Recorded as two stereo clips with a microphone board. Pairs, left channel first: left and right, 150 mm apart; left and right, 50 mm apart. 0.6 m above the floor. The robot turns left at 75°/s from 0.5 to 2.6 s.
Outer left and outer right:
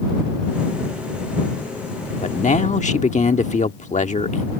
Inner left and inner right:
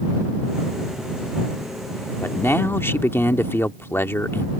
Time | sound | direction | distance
2.2 | a man speaking | 50° left (ahead or behind) | ?